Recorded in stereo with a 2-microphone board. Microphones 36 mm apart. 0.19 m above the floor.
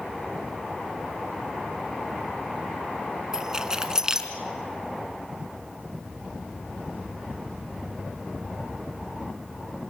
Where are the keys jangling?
20° right (ahead or behind), 1.3 m.